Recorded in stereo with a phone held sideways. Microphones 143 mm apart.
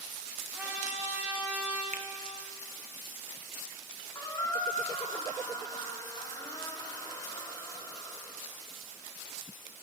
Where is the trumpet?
10° right (ahead or behind), 3 m.